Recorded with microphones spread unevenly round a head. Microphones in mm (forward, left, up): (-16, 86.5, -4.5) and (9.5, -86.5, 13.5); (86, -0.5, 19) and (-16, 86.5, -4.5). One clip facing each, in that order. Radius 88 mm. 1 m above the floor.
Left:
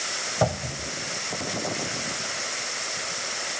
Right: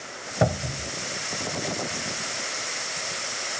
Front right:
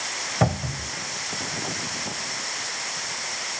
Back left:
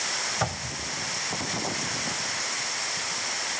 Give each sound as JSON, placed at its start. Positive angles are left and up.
{"t": 0.4, "sound": "a cupboard door", "azimuth_deg": -5}